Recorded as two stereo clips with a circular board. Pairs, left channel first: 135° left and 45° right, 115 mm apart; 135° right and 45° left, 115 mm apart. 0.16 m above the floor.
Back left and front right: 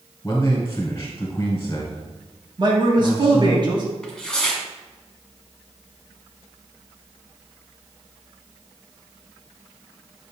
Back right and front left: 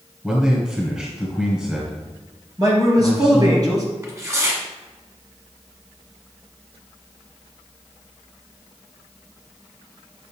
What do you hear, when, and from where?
0.2 s a man speaking: 115° left, 1.5 m
2.6 s a man speaking: 5° right, 2 m
4.0 s tearing paper: 60° left, 1.4 m